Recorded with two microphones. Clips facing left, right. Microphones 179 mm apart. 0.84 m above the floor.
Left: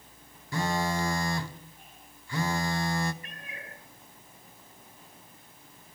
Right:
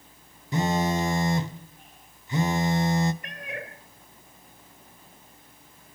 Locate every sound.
0.5 s a phone buzzing: 20° right (ahead or behind), 0.8 m
3.2 s a cat meowing: 75° right (ahead or behind), 1.6 m